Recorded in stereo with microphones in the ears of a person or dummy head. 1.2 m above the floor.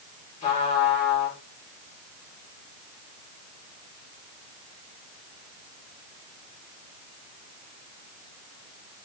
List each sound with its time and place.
0.4 s a trumpet: 30° left (ahead or behind), 2.5 m